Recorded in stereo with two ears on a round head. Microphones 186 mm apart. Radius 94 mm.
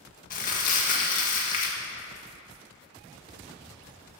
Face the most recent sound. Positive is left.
turn(degrees=45)  # may be behind; listen again after turning